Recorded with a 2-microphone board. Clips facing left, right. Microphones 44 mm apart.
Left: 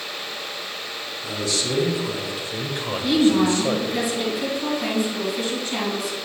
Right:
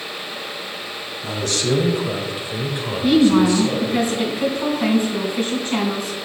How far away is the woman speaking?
About 3 m.